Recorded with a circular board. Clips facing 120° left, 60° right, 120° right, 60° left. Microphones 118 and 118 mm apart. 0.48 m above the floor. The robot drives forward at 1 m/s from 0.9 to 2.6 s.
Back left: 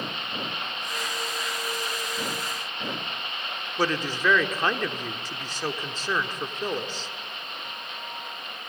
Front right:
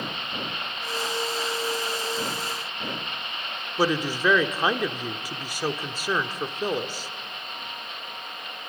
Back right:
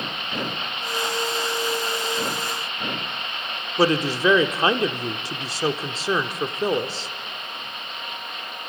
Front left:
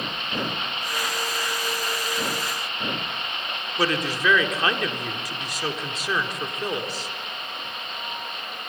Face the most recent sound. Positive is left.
turn(degrees=-125)